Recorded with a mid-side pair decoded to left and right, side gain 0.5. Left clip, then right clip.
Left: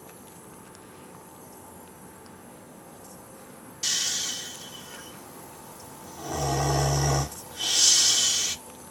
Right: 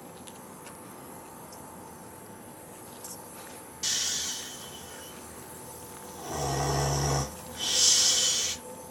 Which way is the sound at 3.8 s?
20° left.